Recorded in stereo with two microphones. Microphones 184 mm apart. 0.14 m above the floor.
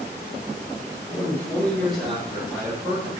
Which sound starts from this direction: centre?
A man speaking, at 1.1 s.